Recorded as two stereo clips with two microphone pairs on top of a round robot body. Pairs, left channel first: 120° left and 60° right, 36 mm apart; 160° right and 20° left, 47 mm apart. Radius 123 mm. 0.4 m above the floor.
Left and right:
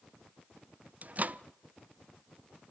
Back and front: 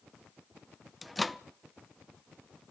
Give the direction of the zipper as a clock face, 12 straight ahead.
I don't hear a zipper.